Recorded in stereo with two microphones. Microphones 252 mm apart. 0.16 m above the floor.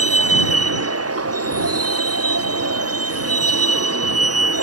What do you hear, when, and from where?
0.0 s a vehicle: 70° right (ahead or behind)